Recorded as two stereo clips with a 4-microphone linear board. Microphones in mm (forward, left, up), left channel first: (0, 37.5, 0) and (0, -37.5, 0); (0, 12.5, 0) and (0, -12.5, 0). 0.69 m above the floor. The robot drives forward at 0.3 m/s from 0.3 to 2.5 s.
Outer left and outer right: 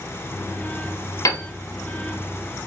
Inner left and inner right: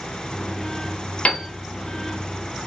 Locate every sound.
1.2 s a piano: 55° left (ahead or behind), 0.5 m; by 1.5 s 50° left (ahead or behind), 0.5 m